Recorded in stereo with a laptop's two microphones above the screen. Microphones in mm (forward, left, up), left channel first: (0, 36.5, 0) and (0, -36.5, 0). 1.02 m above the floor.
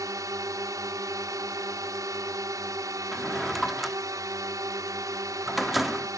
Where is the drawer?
Centre (ahead or behind).